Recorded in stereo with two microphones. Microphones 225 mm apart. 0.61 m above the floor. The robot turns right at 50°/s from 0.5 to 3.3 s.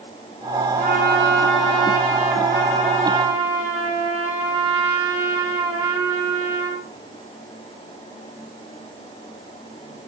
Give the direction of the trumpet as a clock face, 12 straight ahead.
5 o'clock.